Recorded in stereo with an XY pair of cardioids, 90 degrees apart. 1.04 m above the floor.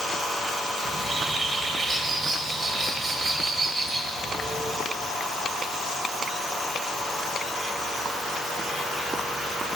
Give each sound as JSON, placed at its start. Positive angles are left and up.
{"t": 0.8, "sound": "a bird", "azimuth_deg": -40, "distance_m": 4.0}